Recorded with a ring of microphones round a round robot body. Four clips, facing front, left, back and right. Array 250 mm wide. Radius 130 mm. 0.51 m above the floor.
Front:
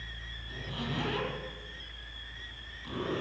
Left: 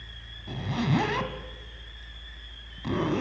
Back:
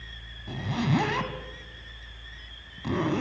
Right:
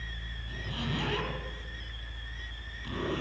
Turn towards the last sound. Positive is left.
turn(degrees=140)